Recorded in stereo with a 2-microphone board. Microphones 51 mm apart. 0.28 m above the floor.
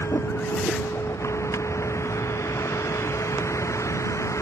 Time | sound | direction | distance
0.0 | a vehicle | 75° left (ahead or behind) | ?